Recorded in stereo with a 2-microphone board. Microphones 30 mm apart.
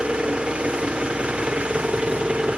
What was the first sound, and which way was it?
An engine running, 40° right (ahead or behind).